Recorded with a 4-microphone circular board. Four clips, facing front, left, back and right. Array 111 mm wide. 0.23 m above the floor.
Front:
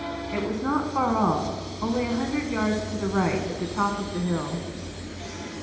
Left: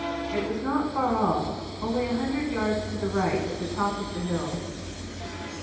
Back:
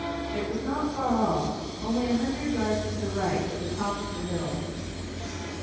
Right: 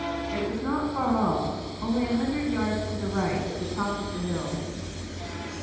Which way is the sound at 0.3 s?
5° left.